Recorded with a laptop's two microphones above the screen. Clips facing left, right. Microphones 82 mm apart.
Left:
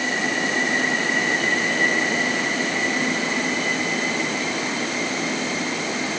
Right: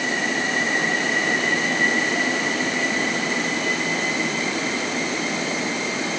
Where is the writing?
I don't hear writing.